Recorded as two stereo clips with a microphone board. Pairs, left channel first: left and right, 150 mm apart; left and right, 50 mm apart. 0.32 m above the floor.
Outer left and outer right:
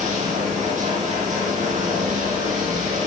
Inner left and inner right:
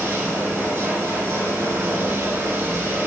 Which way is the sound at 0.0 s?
50° right (ahead or behind).